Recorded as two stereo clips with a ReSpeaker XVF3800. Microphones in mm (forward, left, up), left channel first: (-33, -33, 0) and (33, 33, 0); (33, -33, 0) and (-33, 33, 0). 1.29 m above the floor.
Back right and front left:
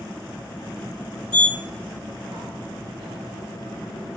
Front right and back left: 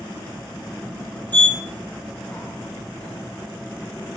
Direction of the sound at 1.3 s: 25° left.